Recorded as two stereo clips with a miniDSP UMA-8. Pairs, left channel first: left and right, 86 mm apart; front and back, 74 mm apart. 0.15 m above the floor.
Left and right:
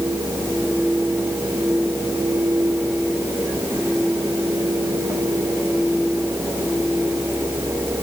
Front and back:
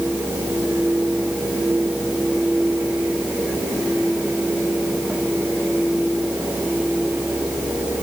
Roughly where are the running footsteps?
No running footsteps in this recording.